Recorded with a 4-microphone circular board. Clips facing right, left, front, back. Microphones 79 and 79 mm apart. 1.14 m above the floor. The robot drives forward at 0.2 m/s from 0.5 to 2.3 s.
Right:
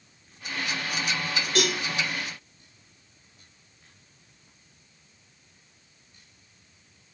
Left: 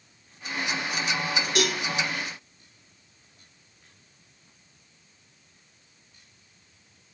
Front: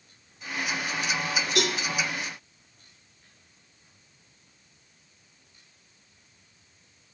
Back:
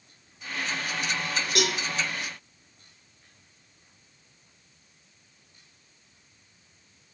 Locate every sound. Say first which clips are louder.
1.6 s a cowbell: right 1 dB, even; 175° left, 1.4 m